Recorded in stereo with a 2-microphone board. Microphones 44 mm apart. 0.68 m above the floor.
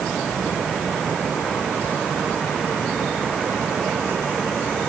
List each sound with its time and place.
Only background noise.